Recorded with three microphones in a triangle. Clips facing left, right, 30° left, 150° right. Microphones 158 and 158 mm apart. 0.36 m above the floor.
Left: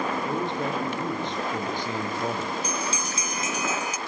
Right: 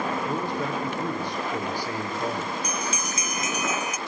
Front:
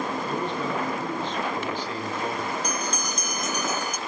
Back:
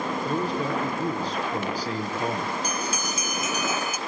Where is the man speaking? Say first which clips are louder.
Even, back 2 dB; 160° left, 6.5 m.